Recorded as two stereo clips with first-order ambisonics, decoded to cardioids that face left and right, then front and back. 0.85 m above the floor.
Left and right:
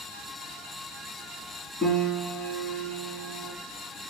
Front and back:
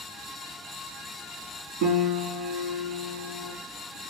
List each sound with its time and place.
1.8 s a piano: 170° left, 1.3 m